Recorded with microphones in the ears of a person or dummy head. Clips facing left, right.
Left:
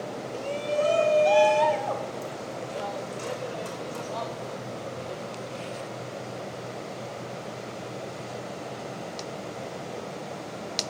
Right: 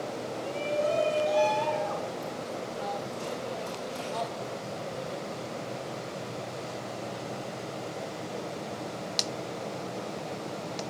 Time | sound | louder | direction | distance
0.3 | a shout | left 4 dB | 75° left (ahead or behind) | 2 m